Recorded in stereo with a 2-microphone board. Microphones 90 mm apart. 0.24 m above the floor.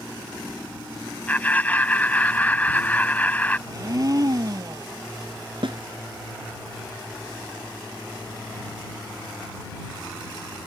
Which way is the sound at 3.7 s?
40° right (ahead or behind).